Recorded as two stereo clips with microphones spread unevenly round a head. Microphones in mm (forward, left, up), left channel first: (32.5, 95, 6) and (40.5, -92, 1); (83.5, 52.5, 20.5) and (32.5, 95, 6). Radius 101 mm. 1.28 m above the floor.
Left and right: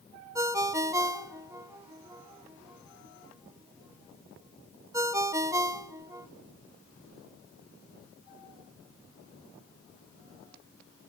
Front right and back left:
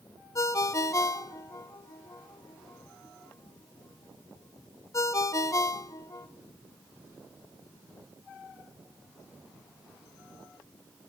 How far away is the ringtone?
About 1.1 m.